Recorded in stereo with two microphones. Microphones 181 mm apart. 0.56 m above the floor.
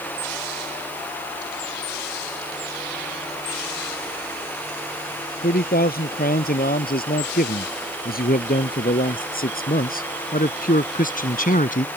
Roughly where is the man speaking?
Left.